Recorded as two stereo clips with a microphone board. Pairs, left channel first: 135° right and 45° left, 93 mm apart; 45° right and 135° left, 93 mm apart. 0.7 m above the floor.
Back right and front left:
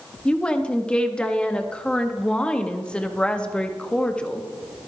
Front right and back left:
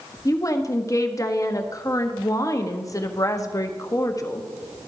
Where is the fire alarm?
I don't hear a fire alarm.